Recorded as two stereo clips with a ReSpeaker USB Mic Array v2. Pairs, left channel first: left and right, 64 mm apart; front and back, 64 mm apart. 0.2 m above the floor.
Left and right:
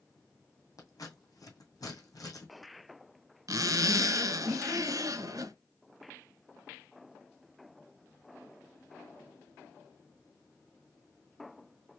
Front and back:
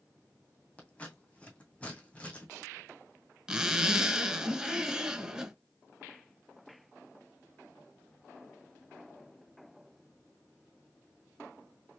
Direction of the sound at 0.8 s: 70° left.